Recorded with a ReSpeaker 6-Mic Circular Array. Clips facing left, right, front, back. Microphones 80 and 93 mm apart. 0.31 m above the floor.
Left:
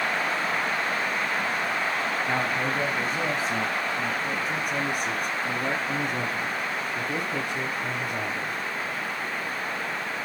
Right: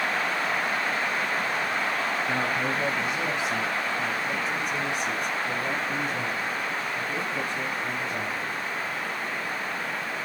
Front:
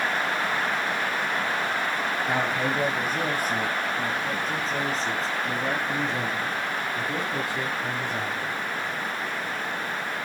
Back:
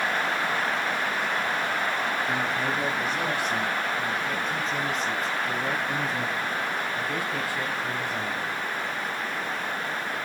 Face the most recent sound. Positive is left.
turn(degrees=70)